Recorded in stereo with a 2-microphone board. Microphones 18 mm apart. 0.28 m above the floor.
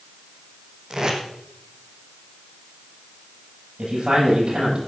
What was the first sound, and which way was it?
Tape being pulled, 40° right (ahead or behind).